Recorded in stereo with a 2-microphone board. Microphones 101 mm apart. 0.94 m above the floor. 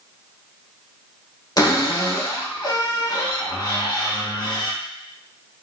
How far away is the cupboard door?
About 0.9 m.